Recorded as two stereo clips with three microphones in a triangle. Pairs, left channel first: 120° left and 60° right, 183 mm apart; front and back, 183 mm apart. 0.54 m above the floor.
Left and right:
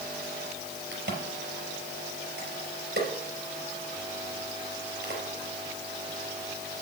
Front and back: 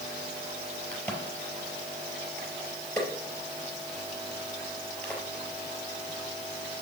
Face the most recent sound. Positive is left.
turn(degrees=-85)